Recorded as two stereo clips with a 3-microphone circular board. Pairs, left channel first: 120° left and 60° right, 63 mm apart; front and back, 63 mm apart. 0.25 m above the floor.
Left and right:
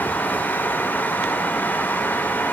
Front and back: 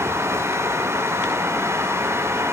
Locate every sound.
Only background noise.